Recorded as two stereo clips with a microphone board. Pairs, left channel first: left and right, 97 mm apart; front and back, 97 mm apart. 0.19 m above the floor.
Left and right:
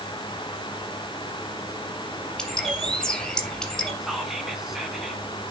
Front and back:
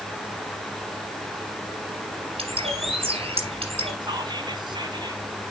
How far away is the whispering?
About 2 m.